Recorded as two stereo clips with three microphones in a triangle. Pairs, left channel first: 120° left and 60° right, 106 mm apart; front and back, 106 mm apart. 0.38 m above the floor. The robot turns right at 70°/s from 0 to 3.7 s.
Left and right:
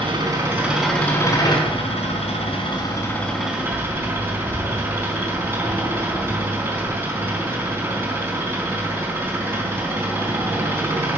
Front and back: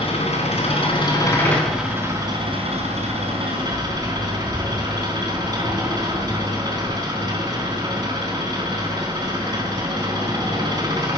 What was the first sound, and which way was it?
An engine running, 25° right.